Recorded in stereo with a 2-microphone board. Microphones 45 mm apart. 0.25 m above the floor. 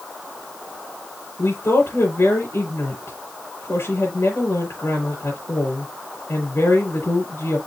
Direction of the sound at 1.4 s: 70° left (ahead or behind).